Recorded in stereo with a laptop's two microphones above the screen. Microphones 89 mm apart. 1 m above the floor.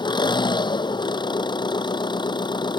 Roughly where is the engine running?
Left.